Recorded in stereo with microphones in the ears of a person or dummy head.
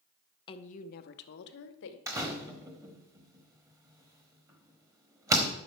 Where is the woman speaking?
25° left (ahead or behind), 0.5 m; by 2.0 s 70° left (ahead or behind), 1.3 m.